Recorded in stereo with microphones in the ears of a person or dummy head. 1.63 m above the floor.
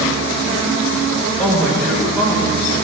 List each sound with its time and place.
1.4 s a man speaking: 10° left (ahead or behind), 1.4 m